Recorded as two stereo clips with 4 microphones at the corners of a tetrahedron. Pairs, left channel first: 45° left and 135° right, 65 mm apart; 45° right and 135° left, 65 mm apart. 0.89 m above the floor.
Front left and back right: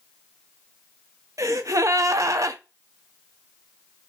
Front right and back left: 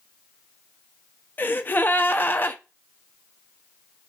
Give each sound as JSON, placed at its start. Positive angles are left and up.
{"t": 1.4, "sound": "a gasp", "azimuth_deg": -100, "distance_m": 0.5}